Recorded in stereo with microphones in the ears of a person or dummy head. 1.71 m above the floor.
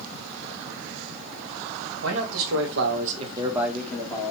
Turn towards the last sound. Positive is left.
turn(degrees=20)  # may be behind; listen again after turning